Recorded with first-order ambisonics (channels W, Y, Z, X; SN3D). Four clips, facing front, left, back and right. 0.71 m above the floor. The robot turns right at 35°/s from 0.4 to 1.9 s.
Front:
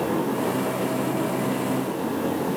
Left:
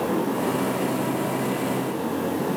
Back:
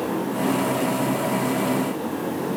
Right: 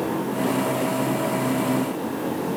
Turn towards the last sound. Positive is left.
No sound to turn to.